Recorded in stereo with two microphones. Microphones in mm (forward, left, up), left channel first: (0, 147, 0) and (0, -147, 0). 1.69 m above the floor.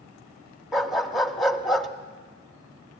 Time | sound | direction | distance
0.7 | a dog barking | centre (ahead or behind) | 1.2 m